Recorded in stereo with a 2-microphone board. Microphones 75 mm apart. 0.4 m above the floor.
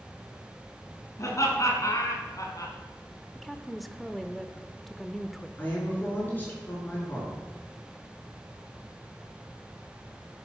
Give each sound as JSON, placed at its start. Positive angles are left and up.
{"t": 1.2, "sound": "laughter", "side_deg": 45, "distance_m": 4.0}
{"t": 3.4, "sound": "a woman speaking", "side_deg": 0, "distance_m": 0.8}
{"t": 5.6, "sound": "a woman speaking", "side_deg": 25, "distance_m": 5.5}